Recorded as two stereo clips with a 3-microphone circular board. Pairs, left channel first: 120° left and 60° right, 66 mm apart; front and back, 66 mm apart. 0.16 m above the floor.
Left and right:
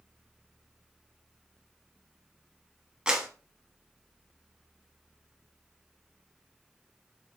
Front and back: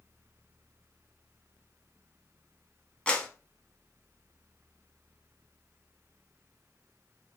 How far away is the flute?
No flute in this recording.